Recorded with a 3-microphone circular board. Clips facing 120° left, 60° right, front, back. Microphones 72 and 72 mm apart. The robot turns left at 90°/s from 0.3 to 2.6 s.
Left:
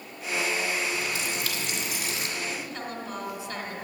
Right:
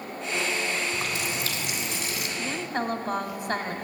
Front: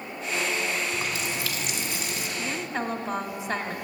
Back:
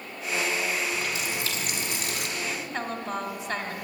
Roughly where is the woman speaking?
Ahead right.